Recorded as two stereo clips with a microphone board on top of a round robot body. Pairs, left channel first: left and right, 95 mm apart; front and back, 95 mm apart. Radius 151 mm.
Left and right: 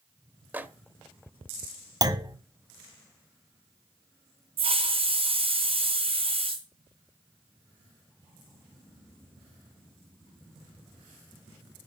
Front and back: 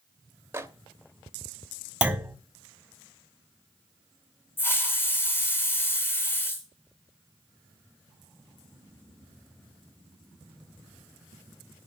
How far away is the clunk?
About 1.5 m.